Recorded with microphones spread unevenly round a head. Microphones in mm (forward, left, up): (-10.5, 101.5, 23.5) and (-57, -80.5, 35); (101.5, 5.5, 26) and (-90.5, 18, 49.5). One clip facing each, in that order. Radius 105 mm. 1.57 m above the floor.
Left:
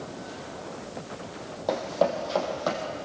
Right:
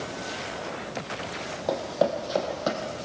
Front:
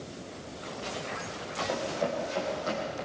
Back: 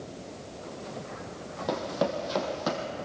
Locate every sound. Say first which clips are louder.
1.7 s running footsteps: even, back 3 dB; 170° left, 3.5 m; by 2.9 s 165° right, 4 m